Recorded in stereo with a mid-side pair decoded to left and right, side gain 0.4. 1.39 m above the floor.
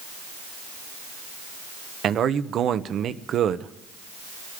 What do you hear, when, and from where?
2.0 s a man speaking: 65° right, 0.9 m